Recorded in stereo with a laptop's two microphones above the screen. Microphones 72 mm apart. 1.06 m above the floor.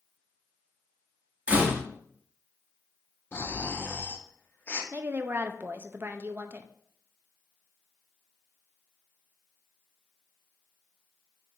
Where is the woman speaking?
30° right (ahead or behind), 0.5 m.